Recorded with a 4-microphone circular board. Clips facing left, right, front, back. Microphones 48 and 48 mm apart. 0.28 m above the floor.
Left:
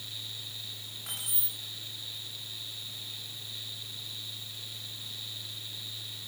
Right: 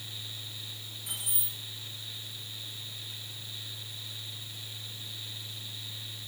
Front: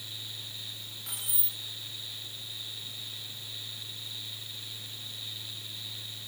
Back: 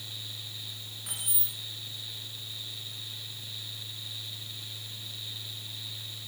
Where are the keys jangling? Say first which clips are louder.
Even, back 2 dB; 100° left, 1.2 m.